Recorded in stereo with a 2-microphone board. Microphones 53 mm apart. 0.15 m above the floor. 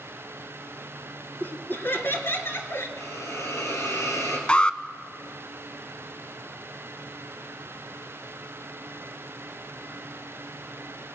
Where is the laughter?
40° left (ahead or behind), 2.5 m; by 2.9 s 50° left (ahead or behind), 3 m.